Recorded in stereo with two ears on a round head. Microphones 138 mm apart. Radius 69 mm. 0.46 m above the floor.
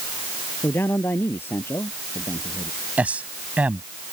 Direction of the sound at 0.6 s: 15° left (ahead or behind).